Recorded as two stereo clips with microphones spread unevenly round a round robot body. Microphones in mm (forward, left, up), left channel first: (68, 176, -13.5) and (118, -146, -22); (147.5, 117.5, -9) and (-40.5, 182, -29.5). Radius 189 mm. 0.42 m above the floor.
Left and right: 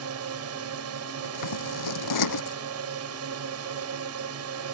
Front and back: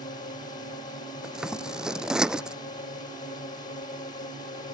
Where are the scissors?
75° left.